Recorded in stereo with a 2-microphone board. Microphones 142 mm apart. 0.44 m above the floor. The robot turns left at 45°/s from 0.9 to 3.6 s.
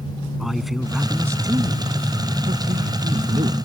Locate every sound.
0.4 s a man speaking: straight ahead; by 3.5 s 120° right